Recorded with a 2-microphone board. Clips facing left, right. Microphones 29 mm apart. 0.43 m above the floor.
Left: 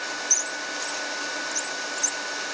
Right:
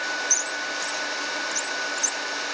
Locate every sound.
Only background noise.